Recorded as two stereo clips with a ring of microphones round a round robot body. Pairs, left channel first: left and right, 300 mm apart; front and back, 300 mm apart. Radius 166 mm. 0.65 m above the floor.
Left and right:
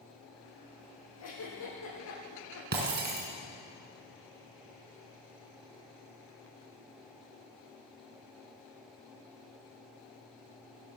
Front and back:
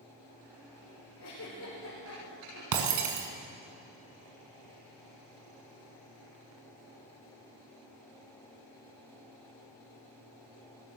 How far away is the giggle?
About 8 m.